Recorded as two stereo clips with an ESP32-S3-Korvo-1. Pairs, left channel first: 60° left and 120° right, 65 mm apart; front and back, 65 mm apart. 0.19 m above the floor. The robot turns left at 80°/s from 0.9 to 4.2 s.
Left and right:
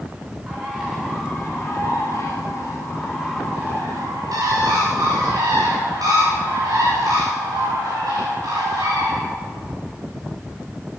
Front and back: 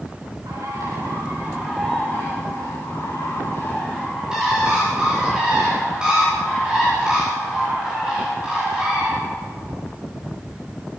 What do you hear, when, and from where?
0.5 s a bird: 160° left, 9.5 m; by 9.2 s 105° right, 9.5 m